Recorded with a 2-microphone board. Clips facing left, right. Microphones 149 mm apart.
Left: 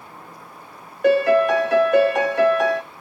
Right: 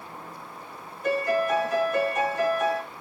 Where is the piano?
75° left (ahead or behind), 0.9 m.